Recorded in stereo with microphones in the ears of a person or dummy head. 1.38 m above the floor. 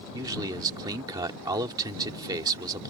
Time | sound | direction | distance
0.1 | a man speaking | 25° right (ahead or behind) | ?